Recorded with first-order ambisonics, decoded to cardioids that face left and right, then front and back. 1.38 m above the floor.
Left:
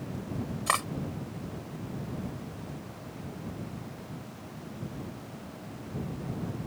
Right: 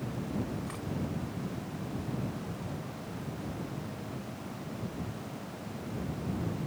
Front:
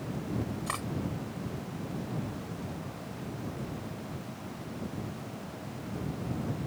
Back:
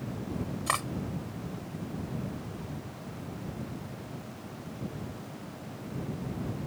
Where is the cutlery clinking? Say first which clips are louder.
Left 14 dB, back 8 dB; 115° left.